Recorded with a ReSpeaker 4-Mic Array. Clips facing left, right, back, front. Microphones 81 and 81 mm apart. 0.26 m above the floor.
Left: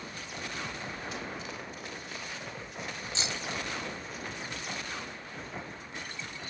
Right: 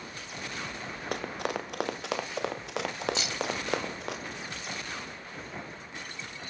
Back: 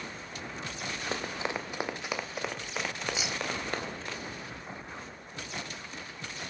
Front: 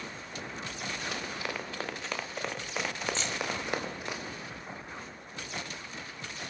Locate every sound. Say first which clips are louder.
1.1 s running footsteps: right 6 dB, back 3 dB; 120° right, 3 m; by 4.2 s 75° right, 4.5 m
3.1 s keys jangling: right 4 dB, even; 110° left, 0.6 m